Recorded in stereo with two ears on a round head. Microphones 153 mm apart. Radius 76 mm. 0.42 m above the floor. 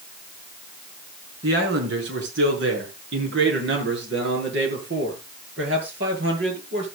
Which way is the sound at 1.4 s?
75° right (ahead or behind).